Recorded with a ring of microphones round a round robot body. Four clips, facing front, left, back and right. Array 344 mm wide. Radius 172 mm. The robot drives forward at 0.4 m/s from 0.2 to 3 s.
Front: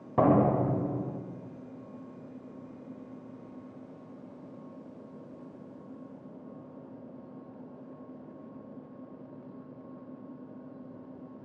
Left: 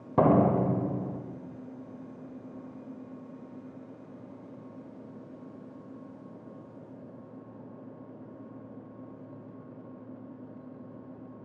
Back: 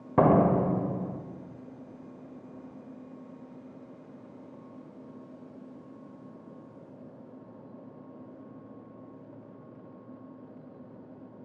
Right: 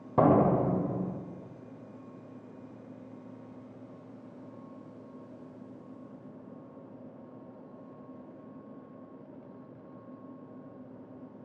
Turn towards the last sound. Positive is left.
turn(degrees=175)